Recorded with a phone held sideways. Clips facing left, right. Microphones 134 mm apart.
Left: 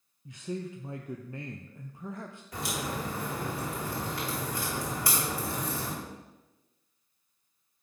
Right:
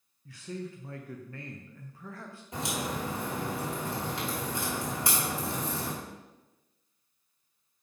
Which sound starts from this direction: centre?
A man speaking, at 0.2 s.